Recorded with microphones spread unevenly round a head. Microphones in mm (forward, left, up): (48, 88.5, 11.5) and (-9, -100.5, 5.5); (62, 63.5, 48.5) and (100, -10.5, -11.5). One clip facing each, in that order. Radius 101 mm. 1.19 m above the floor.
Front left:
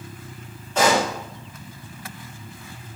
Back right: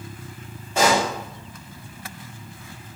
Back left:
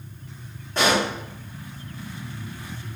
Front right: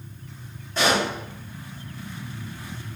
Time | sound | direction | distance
0.8 | a pop | 170° left | 1.9 m